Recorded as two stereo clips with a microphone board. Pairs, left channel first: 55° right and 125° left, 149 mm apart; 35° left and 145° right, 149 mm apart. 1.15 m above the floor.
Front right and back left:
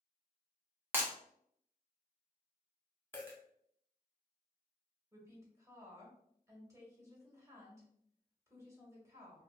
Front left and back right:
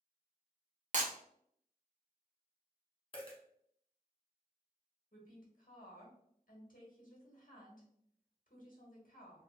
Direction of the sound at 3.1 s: 10° left.